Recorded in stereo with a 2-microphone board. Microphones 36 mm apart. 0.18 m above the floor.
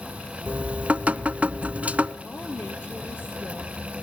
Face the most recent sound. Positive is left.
turn(degrees=70)  # may be behind; listen again after turning